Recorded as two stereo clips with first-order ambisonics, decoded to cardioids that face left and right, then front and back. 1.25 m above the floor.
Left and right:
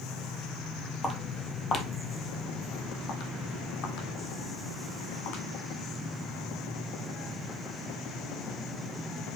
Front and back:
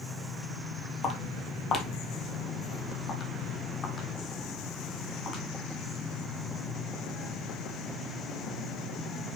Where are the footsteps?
25° left, 1.3 m; by 5.4 s 70° left, 3.5 m.